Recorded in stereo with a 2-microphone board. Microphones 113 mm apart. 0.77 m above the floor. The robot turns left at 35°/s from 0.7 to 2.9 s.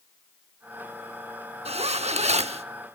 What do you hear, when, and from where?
1.6 s a zipper: 70° right, 0.7 m; by 2.6 s 105° right, 0.7 m